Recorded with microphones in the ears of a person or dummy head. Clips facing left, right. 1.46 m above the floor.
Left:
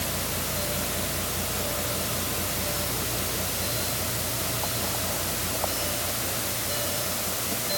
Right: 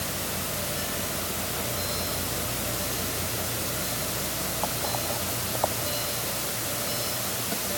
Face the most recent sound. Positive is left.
No sound to turn to.